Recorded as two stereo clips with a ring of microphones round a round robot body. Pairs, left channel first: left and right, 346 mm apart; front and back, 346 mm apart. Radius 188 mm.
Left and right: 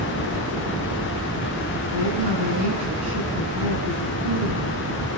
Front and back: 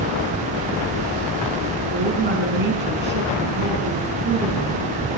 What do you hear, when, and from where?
1.9 s a woman speaking: 120° right, 4.5 m